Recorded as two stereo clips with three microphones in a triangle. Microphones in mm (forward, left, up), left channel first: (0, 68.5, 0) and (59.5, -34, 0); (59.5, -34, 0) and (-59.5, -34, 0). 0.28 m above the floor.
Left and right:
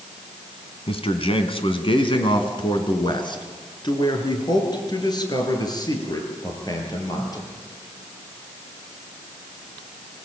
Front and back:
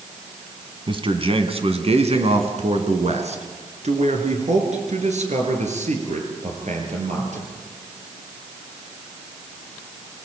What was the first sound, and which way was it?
A man speaking, 145° left.